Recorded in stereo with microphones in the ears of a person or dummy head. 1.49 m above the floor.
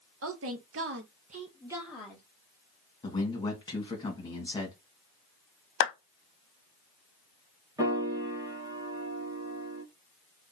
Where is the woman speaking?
75° right (ahead or behind), 1.0 m; by 2.2 s 10° left (ahead or behind), 0.9 m.